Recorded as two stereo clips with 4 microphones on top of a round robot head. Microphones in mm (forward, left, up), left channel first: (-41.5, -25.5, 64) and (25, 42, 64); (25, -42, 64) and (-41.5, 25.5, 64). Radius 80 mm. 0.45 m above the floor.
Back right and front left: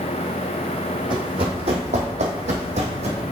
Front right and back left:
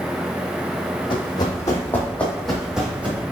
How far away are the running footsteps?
About 1.1 m.